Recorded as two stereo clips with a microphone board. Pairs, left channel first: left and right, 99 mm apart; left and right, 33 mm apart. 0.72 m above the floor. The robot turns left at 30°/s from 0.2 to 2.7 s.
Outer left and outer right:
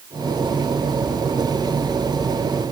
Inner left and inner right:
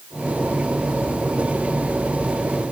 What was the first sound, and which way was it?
Only background noise.